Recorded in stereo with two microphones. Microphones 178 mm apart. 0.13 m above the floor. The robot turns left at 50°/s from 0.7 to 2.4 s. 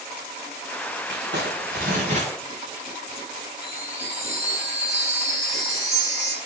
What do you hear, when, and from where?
1.1 s crumpling: 85° right, 4.5 m; by 2.3 s 145° right, 4.5 m
3.6 s a chime: 35° right (ahead or behind), 3 m